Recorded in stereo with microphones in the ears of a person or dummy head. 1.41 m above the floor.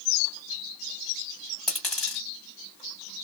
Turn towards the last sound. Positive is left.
turn(degrees=0)  # may be behind; listen again after turning